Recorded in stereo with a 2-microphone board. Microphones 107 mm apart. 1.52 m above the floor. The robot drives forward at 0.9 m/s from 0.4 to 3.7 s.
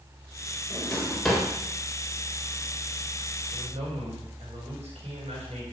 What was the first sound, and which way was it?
A drawer, 5° left (ahead or behind).